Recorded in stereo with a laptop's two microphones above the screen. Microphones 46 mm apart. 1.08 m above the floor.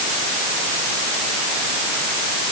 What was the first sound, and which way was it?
Only background noise.